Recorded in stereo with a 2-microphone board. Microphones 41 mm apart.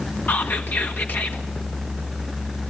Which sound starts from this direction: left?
Whispering, at 0.3 s.